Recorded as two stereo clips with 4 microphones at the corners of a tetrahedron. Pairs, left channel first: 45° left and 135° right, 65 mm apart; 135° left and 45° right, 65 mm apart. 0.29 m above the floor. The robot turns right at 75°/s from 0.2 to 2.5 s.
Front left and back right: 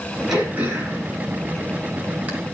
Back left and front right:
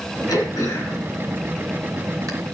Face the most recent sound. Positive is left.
turn(degrees=-55)